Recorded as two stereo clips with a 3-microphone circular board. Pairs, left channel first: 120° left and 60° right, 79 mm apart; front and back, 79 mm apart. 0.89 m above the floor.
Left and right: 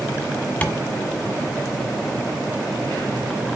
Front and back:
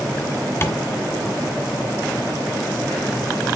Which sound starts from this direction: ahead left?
Tapping, at 0.6 s.